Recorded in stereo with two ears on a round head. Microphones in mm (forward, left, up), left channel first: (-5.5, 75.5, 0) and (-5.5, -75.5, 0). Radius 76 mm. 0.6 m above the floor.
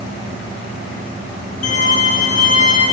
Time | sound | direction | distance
1.6 | a violin | 50° left (ahead or behind) | 9 m